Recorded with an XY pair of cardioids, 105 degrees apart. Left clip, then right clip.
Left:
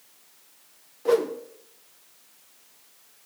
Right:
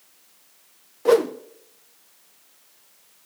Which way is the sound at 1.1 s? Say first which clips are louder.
Right 5 dB; 45° right.